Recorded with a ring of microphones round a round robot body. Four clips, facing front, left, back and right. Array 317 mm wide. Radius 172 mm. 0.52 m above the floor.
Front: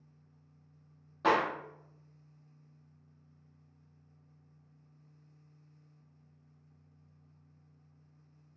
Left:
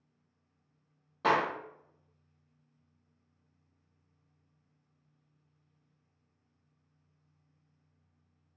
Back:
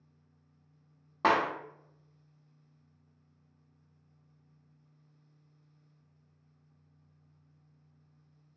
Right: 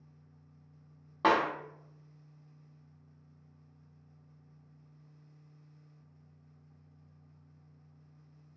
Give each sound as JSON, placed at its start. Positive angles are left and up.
{"t": 1.2, "sound": "a clap", "azimuth_deg": -140, "distance_m": 0.7}